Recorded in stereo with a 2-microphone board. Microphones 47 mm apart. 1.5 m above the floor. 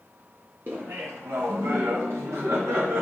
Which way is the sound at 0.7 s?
50° right (ahead or behind).